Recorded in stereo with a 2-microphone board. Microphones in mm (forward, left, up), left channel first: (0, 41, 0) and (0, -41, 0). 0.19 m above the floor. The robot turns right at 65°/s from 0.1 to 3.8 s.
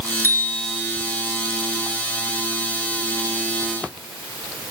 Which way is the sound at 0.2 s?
150° left.